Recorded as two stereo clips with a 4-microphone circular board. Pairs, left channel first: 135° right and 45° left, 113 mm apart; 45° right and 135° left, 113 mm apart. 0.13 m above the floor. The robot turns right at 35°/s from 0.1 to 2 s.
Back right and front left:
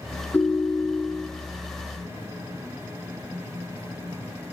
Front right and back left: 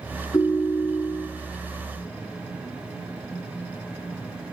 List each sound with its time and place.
0.3 s a ringtone: 75° right, 0.8 m; by 1.3 s 40° right, 0.8 m